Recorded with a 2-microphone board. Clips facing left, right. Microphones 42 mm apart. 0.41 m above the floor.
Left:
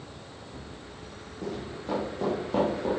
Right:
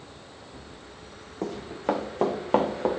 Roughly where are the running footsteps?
Right.